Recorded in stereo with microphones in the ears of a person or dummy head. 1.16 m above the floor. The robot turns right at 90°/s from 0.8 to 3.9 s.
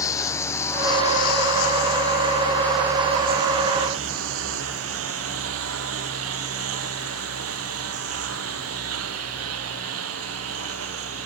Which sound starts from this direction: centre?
A lawn mower, at 0.0 s.